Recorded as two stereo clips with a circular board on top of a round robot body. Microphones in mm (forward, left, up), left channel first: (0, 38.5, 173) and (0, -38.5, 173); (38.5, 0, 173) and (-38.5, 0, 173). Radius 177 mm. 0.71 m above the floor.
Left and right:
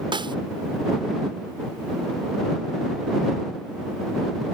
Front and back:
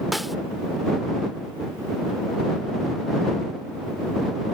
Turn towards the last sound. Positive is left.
turn(degrees=-90)